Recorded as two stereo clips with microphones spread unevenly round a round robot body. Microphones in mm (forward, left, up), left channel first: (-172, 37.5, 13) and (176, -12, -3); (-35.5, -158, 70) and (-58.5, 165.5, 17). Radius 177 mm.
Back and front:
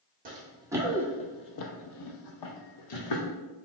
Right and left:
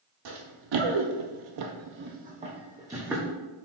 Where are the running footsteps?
60° left, 0.8 m; by 3.3 s straight behind, 1.2 m.